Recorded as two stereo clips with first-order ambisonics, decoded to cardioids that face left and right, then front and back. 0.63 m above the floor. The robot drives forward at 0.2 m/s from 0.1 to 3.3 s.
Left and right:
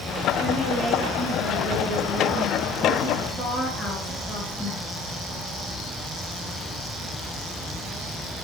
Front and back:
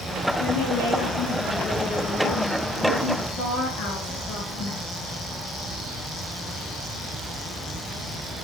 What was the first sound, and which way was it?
A woman speaking, 25° left.